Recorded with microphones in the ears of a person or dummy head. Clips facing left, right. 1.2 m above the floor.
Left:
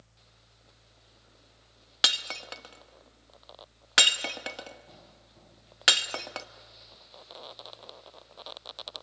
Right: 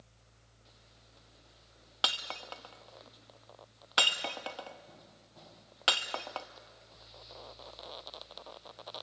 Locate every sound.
2.0 s breaking glass: 20° left (ahead or behind), 0.7 m